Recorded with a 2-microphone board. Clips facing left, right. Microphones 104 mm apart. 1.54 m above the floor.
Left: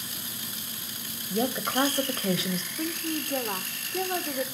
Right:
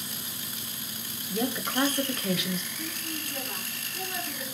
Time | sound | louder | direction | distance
1.3 | a woman speaking | left 2 dB | 20° left (ahead or behind) | 0.8 m
2.8 | a woman speaking | left 6 dB | 60° left (ahead or behind) | 0.7 m